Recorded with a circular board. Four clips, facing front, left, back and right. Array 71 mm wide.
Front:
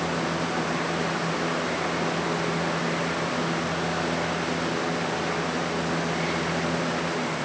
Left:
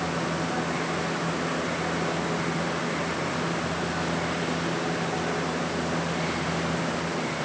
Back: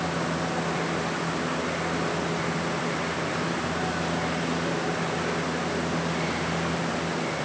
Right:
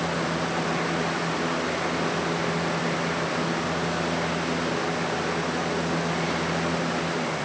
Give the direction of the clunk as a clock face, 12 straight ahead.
No clunk in this recording.